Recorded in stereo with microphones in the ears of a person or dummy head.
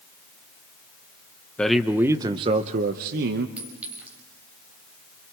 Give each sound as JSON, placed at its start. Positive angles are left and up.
{"t": 1.6, "sound": "a man speaking", "side_deg": 5, "distance_m": 1.0}
{"t": 3.6, "sound": "a clink", "side_deg": -10, "distance_m": 5.0}